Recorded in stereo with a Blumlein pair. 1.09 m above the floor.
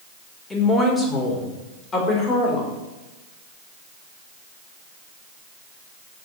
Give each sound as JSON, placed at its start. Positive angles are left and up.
{"t": 0.5, "sound": "a woman speaking", "azimuth_deg": 10, "distance_m": 3.5}